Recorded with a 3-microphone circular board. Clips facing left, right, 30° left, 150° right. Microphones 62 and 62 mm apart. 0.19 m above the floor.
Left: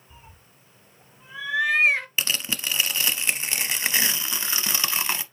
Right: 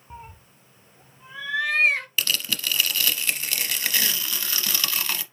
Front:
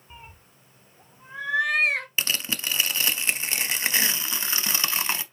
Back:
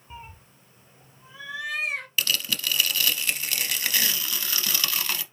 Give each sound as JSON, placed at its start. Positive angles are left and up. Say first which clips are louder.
{"t": 0.1, "sound": "a cat meowing", "louder": "right 10 dB, back 4 dB", "azimuth_deg": -70, "distance_m": 0.6}
{"t": 2.2, "sound": "tearing paper", "louder": "even, back 1 dB", "azimuth_deg": 55, "distance_m": 0.6}